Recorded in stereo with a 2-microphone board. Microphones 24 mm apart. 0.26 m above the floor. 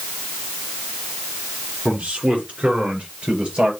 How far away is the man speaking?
About 3 m.